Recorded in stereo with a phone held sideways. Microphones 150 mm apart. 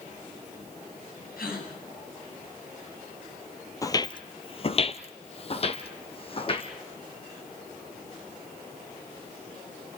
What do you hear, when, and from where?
1.4 s a gasp: 80° left, 8 m
3.8 s footsteps: 20° left (ahead or behind), 1.1 m; by 6.7 s 40° left (ahead or behind), 2.5 m